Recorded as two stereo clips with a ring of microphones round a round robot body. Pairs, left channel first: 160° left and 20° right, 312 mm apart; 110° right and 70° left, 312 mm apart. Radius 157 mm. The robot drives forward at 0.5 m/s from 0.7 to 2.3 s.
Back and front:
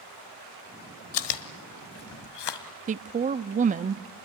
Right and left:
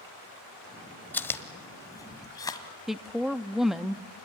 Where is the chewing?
165° left, 1.3 m; by 2.7 s 170° left, 1.8 m.